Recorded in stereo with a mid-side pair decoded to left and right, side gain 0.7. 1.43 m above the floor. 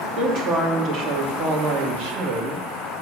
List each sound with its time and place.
0.2 s a woman speaking: 40° right, 3 m; by 2.6 s 65° right, 2 m